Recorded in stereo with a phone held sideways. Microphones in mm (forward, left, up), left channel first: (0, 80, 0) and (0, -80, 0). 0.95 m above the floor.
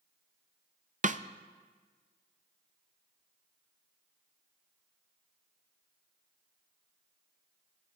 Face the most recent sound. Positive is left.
turn(degrees=-55)  # may be behind; listen again after turning